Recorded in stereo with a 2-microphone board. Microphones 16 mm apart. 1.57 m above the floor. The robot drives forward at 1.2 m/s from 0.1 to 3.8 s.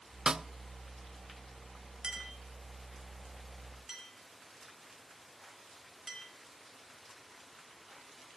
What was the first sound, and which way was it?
A snare drum, 50° right (ahead or behind).